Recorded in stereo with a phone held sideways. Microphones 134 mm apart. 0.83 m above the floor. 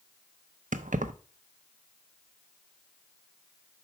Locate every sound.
0.7 s keys jangling: 75° right (ahead or behind), 0.5 m